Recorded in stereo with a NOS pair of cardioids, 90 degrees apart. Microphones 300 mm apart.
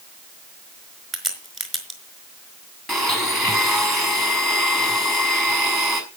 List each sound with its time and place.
1.1 s a crack: straight ahead, 4.5 m
2.9 s a blender: straight ahead, 5 m